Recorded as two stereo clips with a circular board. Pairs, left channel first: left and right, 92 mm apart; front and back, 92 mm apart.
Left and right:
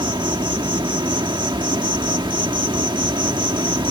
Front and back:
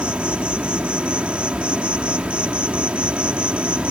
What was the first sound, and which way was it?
An insect, 105° right.